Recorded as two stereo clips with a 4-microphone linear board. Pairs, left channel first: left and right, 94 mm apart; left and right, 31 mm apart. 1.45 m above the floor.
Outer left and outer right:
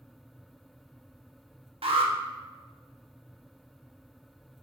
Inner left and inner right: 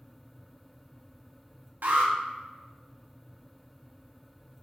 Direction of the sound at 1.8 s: 90° right.